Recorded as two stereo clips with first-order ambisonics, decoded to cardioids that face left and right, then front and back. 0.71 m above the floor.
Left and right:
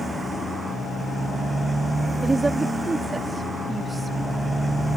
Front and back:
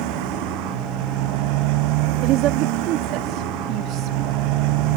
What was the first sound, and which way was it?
A motorcycle, 170° right.